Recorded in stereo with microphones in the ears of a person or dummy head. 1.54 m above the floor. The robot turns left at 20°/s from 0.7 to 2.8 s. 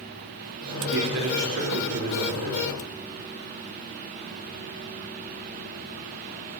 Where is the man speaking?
110° right, 4 m; by 2.7 s 150° right, 4 m.